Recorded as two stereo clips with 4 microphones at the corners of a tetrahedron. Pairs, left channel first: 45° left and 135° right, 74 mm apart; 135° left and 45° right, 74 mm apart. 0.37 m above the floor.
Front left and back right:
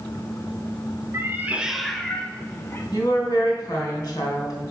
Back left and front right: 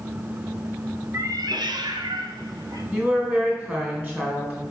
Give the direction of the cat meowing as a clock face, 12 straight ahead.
3 o'clock.